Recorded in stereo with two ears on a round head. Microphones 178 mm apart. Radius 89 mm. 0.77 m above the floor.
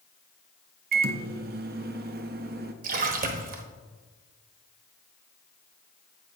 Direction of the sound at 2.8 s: 45° right (ahead or behind).